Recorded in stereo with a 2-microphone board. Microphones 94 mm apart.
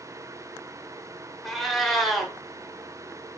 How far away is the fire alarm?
No fire alarm in this recording.